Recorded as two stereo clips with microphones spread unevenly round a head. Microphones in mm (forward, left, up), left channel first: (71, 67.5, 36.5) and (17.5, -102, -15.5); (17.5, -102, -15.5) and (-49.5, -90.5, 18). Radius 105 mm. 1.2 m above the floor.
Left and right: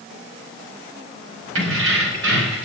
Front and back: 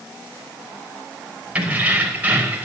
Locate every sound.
1.6 s keys jangling: 120° right, 5 m; by 2.6 s 125° right, 5.5 m